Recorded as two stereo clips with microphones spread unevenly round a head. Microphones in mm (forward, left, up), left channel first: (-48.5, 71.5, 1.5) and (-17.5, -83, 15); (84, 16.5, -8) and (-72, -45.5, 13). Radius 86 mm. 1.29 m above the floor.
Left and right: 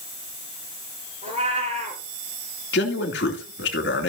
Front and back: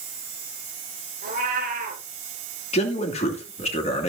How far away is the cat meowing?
About 3.5 m.